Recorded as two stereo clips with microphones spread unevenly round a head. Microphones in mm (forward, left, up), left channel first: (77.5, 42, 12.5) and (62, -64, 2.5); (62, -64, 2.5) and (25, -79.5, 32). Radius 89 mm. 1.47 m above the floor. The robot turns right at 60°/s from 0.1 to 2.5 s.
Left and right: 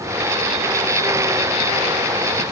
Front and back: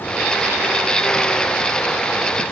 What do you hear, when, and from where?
Only background noise.